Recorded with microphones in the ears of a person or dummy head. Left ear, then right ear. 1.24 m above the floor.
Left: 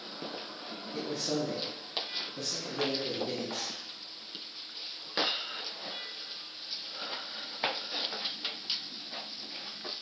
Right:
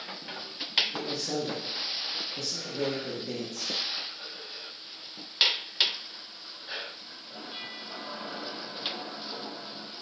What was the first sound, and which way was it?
A man speaking, 10° left (ahead or behind).